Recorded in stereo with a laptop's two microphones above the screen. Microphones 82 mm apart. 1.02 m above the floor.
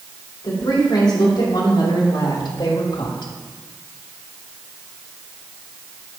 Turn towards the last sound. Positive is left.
turn(degrees=60)  # may be behind; listen again after turning